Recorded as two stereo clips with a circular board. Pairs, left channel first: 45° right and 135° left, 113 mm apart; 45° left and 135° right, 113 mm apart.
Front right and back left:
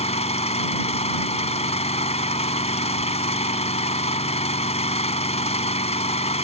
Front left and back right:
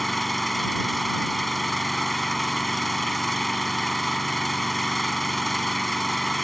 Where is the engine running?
45° right.